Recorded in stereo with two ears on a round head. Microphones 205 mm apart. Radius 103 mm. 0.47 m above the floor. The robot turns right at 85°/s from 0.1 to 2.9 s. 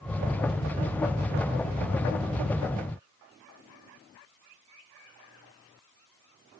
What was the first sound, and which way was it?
Only background noise.